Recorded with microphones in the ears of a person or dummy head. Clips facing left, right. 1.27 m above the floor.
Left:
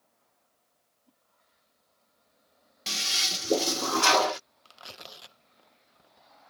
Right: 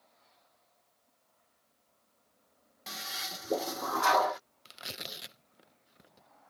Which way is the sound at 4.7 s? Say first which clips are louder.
Right 5 dB; 25° right (ahead or behind).